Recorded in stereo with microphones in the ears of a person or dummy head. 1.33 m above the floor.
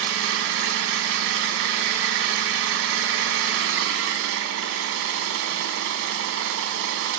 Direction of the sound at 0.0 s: 65° right (ahead or behind).